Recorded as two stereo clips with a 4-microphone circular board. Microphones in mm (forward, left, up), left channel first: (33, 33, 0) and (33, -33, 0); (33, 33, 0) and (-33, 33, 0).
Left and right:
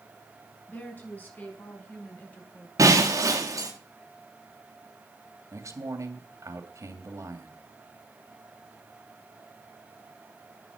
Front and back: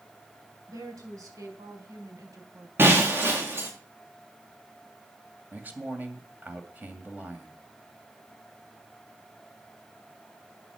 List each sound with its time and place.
0.7 s a woman speaking: 150° left, 5 m; by 2.7 s 155° left, 3 m
2.8 s breaking glass: 125° right, 4 m
5.5 s a man speaking: 120° right, 2.5 m